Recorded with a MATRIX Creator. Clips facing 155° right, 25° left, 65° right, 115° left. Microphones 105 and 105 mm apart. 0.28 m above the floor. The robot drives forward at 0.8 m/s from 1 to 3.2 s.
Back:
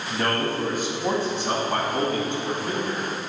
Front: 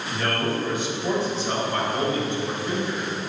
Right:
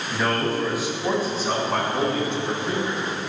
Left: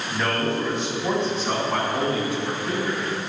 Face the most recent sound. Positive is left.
turn(degrees=-165)